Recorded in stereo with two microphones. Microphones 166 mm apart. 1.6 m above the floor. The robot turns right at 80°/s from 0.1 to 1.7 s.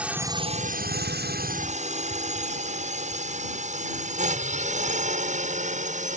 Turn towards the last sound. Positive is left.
turn(degrees=-50)  # may be behind; listen again after turning